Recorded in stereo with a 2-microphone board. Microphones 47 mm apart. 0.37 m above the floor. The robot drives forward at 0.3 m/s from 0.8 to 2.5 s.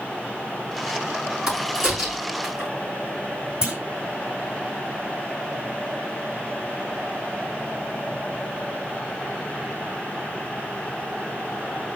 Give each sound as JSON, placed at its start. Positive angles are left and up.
{"t": 1.5, "sound": "a crack", "side_deg": -10, "distance_m": 5.0}
{"t": 3.6, "sound": "a clunk", "side_deg": -20, "distance_m": 1.4}